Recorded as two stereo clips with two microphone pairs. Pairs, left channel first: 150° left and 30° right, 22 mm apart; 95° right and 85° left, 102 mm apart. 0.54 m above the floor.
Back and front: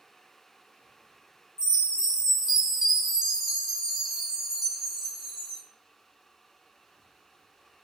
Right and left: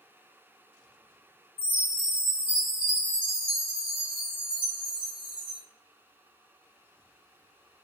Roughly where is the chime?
Ahead left.